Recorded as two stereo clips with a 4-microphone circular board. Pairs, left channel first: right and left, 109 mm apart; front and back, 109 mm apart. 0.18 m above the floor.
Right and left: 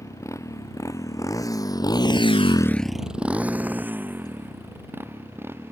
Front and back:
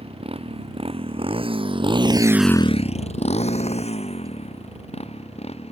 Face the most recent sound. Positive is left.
turn(degrees=20)